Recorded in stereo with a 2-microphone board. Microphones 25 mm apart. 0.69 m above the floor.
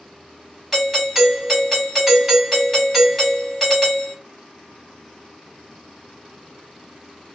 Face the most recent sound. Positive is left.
turn(degrees=-5)  # may be behind; listen again after turning